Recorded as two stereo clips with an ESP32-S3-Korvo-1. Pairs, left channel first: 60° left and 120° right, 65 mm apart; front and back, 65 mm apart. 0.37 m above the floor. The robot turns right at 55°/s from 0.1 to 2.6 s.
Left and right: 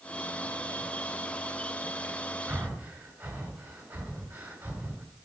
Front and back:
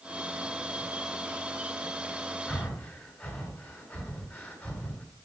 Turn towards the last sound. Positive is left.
turn(degrees=-55)